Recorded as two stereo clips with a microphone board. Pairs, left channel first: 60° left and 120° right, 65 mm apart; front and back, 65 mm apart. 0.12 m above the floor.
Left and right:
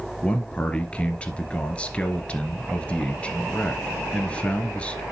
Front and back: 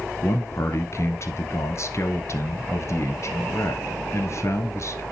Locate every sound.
0.2 s a man speaking: 5° right, 1.5 m